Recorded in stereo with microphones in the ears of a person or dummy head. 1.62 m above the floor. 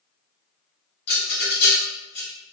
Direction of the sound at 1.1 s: 45° left (ahead or behind).